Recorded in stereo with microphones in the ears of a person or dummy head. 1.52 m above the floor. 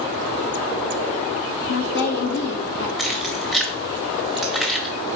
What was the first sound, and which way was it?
A woman speaking, 60° left (ahead or behind).